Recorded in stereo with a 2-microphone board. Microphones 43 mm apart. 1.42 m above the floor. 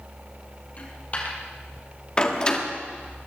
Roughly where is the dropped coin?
Left.